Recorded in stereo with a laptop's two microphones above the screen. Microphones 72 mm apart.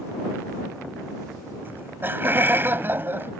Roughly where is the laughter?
Right.